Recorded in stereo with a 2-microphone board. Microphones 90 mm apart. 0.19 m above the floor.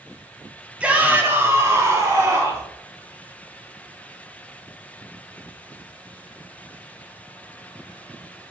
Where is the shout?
10° right (ahead or behind), 1.4 m; by 2.6 s 35° right (ahead or behind), 2 m.